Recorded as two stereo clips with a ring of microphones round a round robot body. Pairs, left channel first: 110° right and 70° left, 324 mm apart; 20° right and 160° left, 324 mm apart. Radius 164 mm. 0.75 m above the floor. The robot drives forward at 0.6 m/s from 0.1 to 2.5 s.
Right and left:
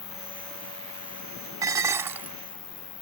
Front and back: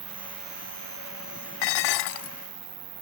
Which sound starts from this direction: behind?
An insect, at 0.0 s.